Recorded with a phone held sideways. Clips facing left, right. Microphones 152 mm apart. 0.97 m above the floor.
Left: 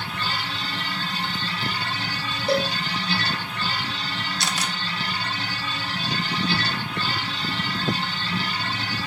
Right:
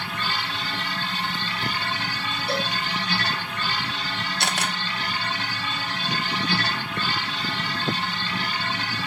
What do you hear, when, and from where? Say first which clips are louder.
0.0 s a machine running: even; 30° left (ahead or behind), 5.5 m
2.5 s a cowbell: left 6 dB; 45° left (ahead or behind), 4.5 m
4.4 s a camera shutter: right 3 dB; 55° right (ahead or behind), 1.3 m